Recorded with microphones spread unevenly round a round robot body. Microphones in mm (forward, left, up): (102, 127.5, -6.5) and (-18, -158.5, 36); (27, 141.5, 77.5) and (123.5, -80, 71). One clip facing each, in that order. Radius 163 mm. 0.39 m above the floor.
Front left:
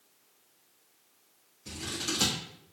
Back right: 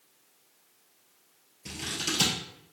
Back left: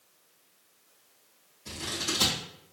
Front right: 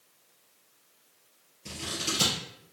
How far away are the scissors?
About 2 m.